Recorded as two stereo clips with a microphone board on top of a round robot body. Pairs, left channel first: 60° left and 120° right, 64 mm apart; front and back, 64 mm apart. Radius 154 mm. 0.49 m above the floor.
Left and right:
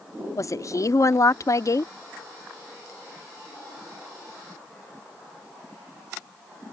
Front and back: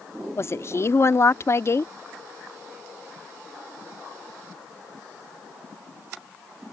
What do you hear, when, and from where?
0.4 s a woman speaking: 35° left